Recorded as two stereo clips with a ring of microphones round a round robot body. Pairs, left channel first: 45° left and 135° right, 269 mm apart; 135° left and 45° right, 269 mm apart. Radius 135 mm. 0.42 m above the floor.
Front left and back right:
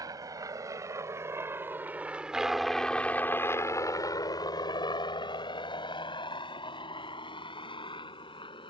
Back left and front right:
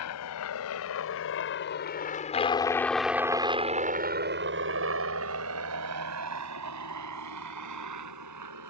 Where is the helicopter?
150° left; by 8.7 s 30° right.